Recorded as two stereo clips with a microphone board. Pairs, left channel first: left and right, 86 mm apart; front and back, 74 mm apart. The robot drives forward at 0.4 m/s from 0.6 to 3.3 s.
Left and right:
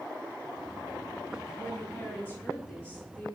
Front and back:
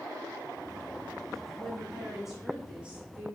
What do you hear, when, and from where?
1.6 s a woman speaking: 65° left, 1.1 m; by 3.4 s 145° left, 1.2 m